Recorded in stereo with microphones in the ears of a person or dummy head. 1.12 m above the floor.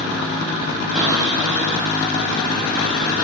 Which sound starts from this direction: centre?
A cupboard door, at 0.9 s.